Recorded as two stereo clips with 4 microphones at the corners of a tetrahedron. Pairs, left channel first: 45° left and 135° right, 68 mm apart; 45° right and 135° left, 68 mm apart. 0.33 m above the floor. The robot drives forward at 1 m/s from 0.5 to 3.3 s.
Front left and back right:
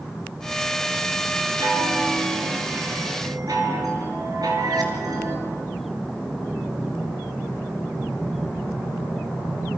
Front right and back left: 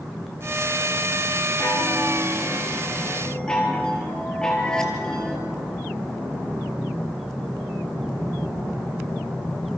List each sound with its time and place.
1.6 s a chime: 95° right, 3 m; by 5.4 s 125° right, 3.5 m